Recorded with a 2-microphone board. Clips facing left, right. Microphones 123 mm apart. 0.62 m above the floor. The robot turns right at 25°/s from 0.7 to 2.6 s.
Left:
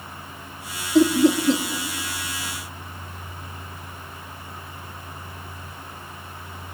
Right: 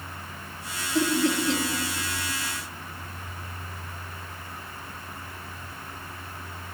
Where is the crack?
No crack in this recording.